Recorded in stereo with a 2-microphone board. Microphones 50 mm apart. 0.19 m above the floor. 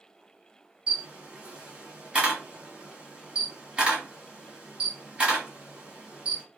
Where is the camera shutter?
20° right (ahead or behind), 1.6 m.